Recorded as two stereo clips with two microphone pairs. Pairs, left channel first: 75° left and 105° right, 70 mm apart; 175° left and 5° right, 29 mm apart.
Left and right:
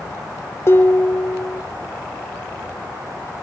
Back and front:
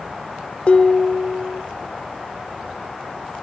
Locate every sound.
0.7 s dishes clattering: 125° left, 1.1 m